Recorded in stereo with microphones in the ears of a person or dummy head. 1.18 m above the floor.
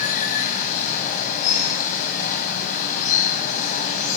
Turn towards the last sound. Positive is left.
turn(degrees=40)  # may be behind; listen again after turning